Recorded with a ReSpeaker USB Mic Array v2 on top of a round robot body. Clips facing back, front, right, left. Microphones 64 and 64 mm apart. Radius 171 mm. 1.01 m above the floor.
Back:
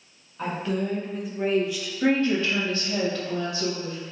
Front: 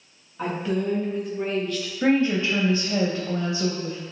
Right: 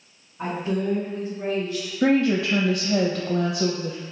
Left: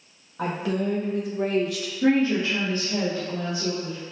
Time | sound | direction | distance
0.4 | a woman speaking | 85° left | 1.6 m
2.0 | a woman speaking | 75° right | 0.6 m